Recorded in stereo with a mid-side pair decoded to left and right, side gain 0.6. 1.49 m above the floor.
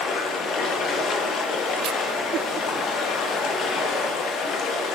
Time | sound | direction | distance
0.0 | running water | 55° left | 2.5 m